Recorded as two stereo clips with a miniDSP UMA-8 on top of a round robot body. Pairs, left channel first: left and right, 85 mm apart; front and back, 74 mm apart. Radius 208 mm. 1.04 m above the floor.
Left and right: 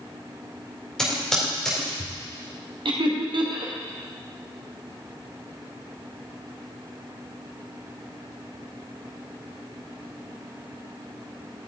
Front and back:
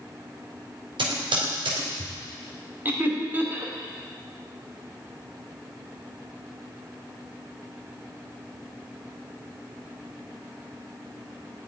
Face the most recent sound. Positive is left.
turn(degrees=-115)